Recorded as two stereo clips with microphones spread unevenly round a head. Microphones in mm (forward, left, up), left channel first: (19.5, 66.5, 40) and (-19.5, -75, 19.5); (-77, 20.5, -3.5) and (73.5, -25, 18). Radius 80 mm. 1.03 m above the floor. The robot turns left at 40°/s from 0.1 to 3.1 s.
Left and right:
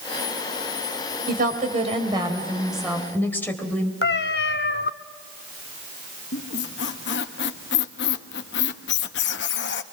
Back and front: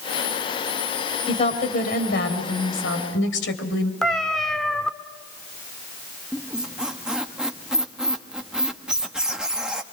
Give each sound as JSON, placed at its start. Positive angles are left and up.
{"t": 1.3, "sound": "a woman speaking", "azimuth_deg": -135, "distance_m": 4.0}
{"t": 4.0, "sound": "a cat meowing", "azimuth_deg": 70, "distance_m": 1.0}
{"t": 6.3, "sound": "a squeak", "azimuth_deg": 70, "distance_m": 1.1}